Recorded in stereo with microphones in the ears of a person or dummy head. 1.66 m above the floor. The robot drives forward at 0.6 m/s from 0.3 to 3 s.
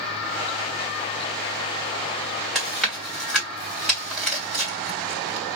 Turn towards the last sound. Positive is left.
turn(degrees=0)  # may be behind; listen again after turning